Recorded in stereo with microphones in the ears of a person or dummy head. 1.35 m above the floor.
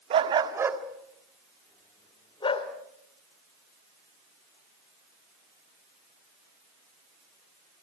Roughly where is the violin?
I don't hear a violin.